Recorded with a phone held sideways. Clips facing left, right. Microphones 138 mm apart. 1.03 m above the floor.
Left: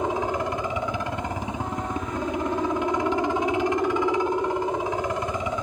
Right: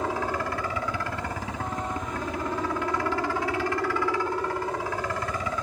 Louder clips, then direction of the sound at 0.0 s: Left 3 dB; 20° left (ahead or behind).